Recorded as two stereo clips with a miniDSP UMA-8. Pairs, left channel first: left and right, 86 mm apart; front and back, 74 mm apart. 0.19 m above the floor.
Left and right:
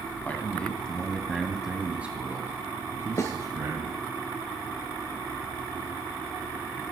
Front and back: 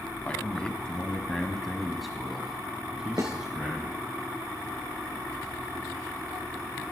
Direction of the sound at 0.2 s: 50° left.